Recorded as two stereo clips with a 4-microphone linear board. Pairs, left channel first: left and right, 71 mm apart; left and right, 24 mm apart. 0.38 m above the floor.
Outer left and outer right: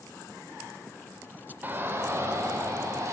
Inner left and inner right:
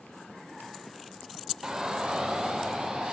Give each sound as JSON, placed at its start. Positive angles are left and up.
{"t": 1.6, "sound": "a shout", "side_deg": -30, "distance_m": 1.1}